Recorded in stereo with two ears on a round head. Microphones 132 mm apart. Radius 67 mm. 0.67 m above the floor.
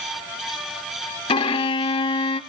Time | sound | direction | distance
1.3 | a violin | 35° left (ahead or behind) | 0.7 m